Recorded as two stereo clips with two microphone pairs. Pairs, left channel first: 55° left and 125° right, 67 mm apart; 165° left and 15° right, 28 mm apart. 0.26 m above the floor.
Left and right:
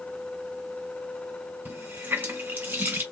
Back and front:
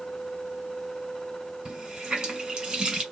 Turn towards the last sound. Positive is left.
turn(degrees=-65)